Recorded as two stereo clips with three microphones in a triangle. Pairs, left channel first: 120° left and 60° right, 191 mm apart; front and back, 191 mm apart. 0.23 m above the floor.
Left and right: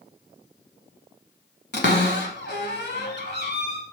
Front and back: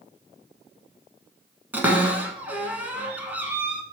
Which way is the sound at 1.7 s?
100° left.